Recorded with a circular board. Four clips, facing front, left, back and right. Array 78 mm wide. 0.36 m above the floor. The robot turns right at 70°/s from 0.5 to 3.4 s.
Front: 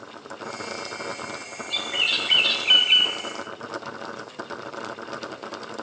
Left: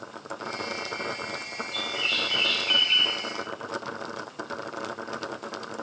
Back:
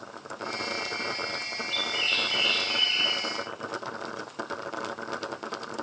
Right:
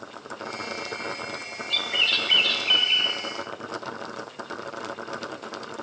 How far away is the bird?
About 1.3 m.